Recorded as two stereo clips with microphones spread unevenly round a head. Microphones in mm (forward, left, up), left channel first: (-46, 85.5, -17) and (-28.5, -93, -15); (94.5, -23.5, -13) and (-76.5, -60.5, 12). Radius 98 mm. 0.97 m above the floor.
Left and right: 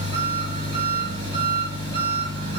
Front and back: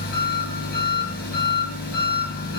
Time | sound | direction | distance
0.0 | an engine running | 20° right | 6.5 m